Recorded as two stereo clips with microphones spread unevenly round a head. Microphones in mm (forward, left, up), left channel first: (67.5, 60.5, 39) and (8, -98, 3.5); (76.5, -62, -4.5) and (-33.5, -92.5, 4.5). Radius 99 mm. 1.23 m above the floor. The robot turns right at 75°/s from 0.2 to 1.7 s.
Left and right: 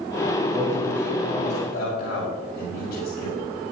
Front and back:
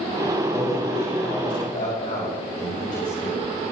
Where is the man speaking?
50° right, 5.5 m; by 3.4 s 40° left, 5.5 m.